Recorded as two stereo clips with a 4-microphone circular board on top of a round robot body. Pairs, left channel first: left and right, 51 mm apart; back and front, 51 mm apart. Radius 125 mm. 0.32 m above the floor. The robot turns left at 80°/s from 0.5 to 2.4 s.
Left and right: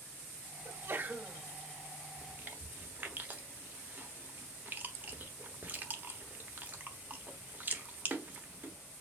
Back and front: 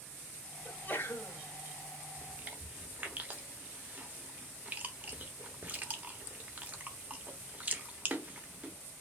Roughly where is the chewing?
Ahead right.